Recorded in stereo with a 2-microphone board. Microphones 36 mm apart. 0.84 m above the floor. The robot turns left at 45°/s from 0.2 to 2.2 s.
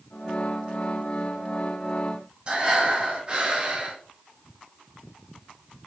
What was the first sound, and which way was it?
Breathing, 25° right (ahead or behind).